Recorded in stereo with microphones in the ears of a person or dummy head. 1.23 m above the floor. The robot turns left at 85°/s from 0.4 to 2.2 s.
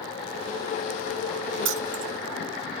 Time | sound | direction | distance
1.6 | keys jangling | 80° right | 2.5 m